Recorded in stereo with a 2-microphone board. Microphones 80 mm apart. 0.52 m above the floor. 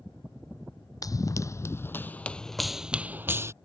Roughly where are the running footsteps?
Left.